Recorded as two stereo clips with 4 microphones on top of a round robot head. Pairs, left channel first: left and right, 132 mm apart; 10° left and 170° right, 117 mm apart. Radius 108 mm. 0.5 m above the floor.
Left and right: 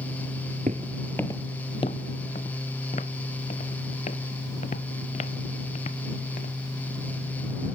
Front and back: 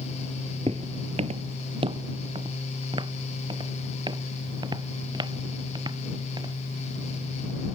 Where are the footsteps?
120° right; by 6.5 s 135° left.